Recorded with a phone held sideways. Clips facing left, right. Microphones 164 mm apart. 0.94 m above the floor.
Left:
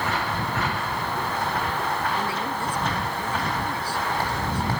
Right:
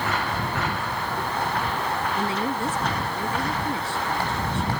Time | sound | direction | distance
2.1 | a woman speaking | 25° right (ahead or behind) | ?